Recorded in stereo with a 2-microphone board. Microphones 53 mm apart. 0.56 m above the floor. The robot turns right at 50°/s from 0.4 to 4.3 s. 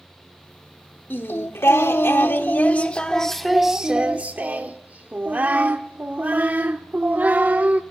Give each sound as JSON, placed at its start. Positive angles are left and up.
{"t": 1.1, "sound": "singing", "azimuth_deg": 65, "distance_m": 1.1}